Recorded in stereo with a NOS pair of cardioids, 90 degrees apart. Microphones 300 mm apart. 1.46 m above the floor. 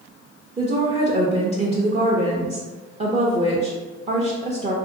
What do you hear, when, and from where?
0.6 s a woman speaking: 25° right, 0.5 m